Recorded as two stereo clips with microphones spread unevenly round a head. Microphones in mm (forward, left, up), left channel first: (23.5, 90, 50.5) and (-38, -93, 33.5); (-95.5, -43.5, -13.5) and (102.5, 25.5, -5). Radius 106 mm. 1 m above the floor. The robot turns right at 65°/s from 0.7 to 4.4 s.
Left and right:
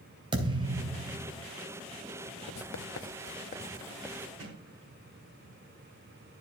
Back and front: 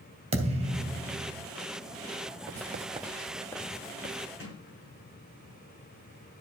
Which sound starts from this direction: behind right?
A sliding door, at 4.4 s.